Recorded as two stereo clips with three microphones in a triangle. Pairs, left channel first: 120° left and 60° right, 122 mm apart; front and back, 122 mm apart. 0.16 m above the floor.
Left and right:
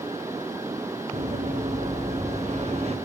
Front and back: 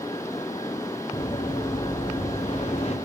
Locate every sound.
1.1 s running footsteps: 50° right, 2.5 m; by 3.0 s 30° right, 2.5 m